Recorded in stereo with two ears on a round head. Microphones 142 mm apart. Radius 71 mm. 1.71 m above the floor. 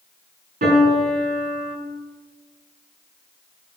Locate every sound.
0.6 s a piano: 55° right (ahead or behind), 7.5 m